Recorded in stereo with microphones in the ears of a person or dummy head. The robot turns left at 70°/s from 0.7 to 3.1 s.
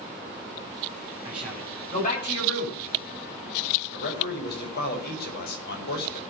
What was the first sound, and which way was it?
A man speaking, 15° right (ahead or behind).